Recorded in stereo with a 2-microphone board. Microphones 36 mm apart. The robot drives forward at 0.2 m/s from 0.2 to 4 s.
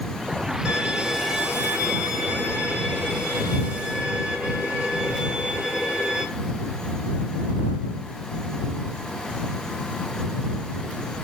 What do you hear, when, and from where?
0.7 s a violin: 45° right (ahead or behind), 1.7 m; by 6.2 s 35° right (ahead or behind), 2 m